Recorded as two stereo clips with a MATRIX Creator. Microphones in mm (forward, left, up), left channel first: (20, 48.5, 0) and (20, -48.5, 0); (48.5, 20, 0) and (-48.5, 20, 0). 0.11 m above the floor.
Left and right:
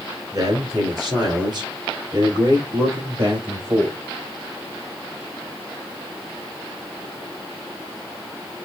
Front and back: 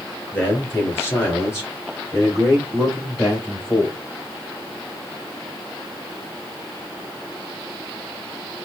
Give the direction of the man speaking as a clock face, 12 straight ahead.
2 o'clock.